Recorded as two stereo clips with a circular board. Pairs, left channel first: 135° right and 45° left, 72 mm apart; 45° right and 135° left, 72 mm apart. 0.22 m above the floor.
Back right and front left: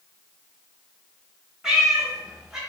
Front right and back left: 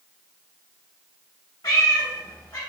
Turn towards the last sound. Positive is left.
turn(degrees=-40)